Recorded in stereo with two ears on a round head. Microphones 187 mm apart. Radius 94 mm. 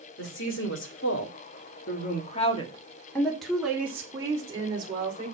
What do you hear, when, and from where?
0.2 s a woman speaking: 70° left (ahead or behind), 3 m; by 5.3 s 25° right (ahead or behind), 3.5 m